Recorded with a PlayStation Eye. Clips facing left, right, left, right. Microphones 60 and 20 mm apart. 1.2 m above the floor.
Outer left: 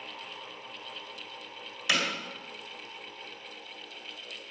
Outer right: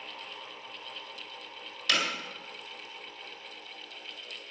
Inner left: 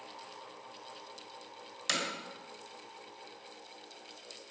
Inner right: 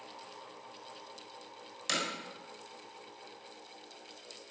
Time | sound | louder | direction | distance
1.9 | hammering | even, even | 10° left (ahead or behind) | 4 m